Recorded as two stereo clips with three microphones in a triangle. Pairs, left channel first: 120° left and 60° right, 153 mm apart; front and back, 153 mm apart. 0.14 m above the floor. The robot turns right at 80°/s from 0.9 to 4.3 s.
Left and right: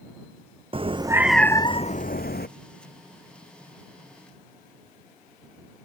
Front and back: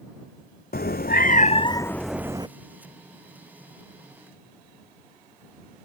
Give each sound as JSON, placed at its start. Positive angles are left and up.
{"t": 0.7, "sound": "a cat meowing", "azimuth_deg": -5}